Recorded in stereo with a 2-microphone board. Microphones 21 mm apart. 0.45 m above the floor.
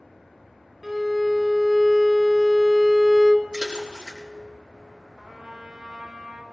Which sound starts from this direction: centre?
A violin, at 0.8 s.